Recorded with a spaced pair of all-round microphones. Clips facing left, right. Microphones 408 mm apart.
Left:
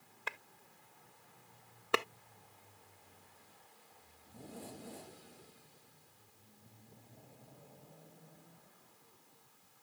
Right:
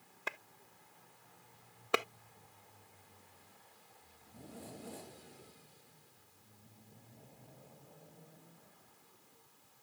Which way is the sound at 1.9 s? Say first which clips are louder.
Even; 5° left (ahead or behind).